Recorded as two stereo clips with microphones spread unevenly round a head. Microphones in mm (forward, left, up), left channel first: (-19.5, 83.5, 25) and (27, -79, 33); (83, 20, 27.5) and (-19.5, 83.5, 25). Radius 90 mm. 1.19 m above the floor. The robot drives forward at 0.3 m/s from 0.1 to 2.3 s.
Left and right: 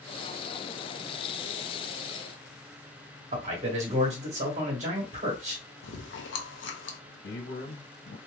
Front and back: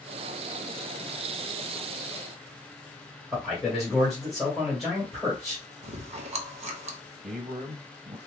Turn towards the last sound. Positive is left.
turn(degrees=120)